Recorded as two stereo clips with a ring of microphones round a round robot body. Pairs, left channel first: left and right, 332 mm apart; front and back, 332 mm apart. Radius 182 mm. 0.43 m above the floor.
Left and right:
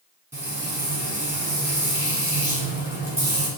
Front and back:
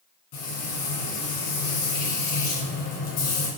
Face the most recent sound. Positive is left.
turn(degrees=-5)